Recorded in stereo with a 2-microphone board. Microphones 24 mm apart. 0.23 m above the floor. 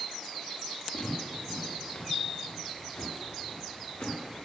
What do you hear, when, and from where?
0.9 s footsteps: 60° left (ahead or behind), 6 m; by 4.5 s 80° left, 4.5 m